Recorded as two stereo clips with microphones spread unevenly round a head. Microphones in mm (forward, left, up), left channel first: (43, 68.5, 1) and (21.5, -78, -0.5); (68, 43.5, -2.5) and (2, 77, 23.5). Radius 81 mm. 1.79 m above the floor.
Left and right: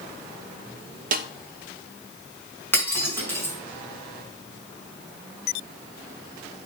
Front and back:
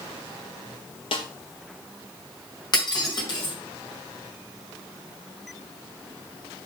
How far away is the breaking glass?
About 5 m.